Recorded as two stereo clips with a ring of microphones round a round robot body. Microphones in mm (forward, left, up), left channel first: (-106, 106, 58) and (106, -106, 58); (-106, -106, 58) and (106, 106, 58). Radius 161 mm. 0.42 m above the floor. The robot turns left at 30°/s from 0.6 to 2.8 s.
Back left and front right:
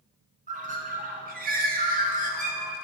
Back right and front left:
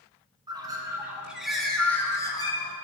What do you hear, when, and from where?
0.5 s a bird: 15° right, 1.0 m; by 2.7 s 80° right, 1.0 m